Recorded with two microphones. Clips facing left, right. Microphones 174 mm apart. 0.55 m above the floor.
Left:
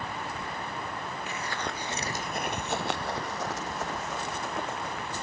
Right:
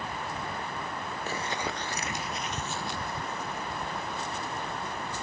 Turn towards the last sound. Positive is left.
turn(degrees=80)